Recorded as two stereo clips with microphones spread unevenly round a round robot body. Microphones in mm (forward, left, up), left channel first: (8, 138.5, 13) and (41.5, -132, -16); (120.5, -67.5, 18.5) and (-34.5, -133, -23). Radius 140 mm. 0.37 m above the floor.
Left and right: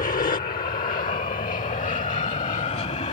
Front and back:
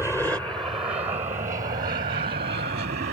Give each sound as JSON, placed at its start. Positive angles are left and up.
{"t": 0.0, "sound": "an aircraft", "azimuth_deg": 110}